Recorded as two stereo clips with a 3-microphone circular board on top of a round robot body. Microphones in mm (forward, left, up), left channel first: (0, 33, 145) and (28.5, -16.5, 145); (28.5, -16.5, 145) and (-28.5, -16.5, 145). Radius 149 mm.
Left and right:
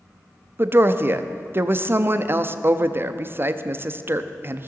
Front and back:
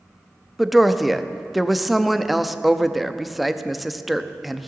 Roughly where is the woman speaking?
Right.